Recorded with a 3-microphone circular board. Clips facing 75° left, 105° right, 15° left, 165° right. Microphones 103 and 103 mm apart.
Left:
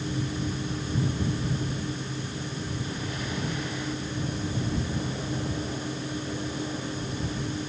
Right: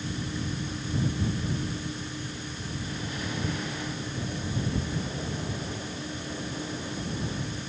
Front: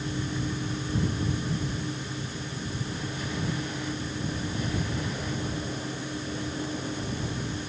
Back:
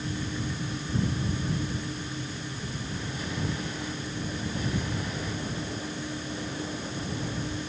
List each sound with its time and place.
Only background noise.